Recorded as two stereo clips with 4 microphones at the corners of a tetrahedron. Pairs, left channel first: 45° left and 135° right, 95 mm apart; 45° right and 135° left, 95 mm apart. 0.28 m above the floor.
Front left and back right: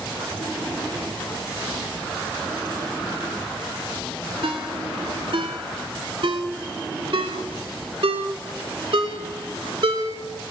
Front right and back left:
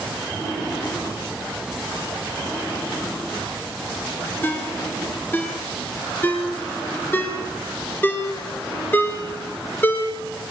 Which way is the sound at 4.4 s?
115° right.